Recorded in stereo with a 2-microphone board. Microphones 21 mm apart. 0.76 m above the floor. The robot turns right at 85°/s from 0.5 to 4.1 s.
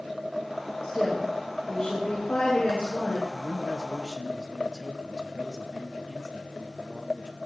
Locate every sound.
0.8 s a woman speaking: 55° right, 7.5 m; by 3.2 s 145° left, 7.5 m
3.3 s a man speaking: 155° left, 1.4 m; by 7.4 s 135° right, 1.4 m